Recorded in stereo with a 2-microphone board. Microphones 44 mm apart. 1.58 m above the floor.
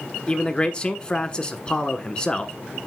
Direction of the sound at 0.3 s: 25° left (ahead or behind).